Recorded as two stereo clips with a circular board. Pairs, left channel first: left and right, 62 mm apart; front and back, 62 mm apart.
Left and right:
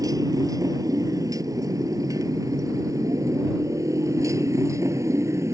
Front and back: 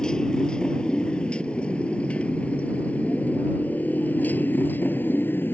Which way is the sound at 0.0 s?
75° right.